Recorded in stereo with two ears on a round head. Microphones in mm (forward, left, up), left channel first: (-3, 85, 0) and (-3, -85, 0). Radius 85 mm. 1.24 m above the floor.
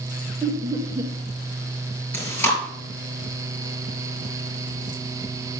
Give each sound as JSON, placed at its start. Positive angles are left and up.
{"t": 0.4, "sound": "laughter", "side_deg": -15, "distance_m": 1.2}
{"t": 2.1, "sound": "chewing", "side_deg": 10, "distance_m": 4.5}